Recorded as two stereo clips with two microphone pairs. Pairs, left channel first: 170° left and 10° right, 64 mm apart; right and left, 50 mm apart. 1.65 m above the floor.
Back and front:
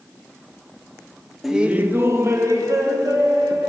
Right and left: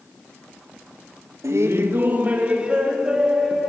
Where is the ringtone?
No ringtone in this recording.